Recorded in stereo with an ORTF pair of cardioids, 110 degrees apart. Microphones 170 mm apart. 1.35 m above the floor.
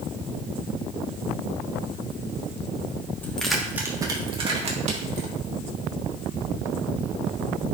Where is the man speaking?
I don't hear a man speaking.